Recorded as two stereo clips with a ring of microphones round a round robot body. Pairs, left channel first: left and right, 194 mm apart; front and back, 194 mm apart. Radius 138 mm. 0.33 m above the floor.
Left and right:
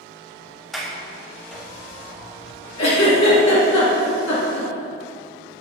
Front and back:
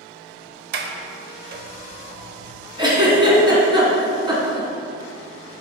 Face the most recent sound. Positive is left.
turn(degrees=115)